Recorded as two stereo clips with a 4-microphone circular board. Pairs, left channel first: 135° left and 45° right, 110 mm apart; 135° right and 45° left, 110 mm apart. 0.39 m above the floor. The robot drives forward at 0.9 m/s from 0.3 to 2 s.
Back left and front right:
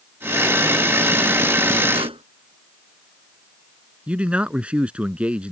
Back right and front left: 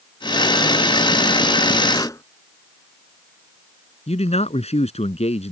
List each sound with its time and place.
1.9 s a pop: 75° right
4.1 s a man speaking: 125° right